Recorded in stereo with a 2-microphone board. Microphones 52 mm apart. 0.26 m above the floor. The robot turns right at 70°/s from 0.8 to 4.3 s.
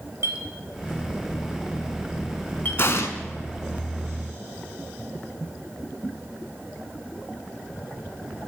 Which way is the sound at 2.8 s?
50° left (ahead or behind).